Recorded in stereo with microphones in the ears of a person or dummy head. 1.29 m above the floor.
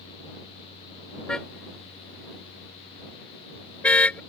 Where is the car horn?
Centre (ahead or behind); by 4.2 s 5° left (ahead or behind).